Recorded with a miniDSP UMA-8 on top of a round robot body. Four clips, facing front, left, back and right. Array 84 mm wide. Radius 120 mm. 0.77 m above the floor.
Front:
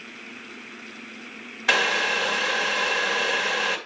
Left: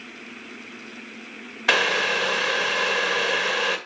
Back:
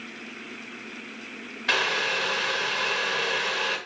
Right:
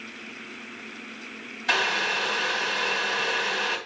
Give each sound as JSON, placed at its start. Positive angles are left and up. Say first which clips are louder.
{"t": 1.7, "sound": "boiling", "louder": "left 4 dB, front 3 dB", "azimuth_deg": 70, "distance_m": 1.6}